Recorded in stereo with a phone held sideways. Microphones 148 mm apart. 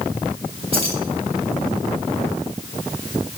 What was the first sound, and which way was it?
Keys jangling, 40° right (ahead or behind).